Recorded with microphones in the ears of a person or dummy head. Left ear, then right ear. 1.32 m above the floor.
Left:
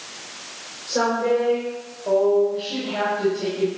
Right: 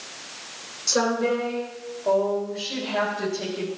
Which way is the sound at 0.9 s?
80° right.